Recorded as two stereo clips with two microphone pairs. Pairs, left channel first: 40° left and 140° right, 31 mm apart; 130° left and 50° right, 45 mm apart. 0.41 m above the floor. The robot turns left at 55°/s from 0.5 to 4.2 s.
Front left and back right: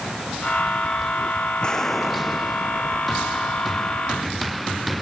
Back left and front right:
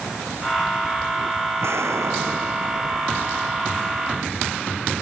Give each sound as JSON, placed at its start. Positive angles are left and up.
{"t": 1.6, "sound": "an explosion", "azimuth_deg": -25}